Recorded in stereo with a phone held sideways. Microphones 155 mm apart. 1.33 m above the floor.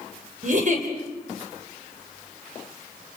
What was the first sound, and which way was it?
A giggle, 60° right (ahead or behind).